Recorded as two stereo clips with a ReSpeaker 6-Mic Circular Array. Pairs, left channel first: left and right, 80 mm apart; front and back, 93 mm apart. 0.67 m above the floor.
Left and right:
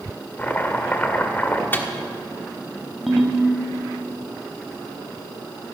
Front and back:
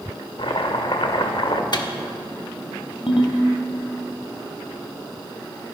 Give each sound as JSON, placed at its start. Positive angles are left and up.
{"t": 0.4, "sound": "chopping", "azimuth_deg": 20, "distance_m": 1.1}
{"t": 1.7, "sound": "a microwave", "azimuth_deg": 30, "distance_m": 1.2}
{"t": 3.1, "sound": "a ringtone", "azimuth_deg": 0, "distance_m": 2.0}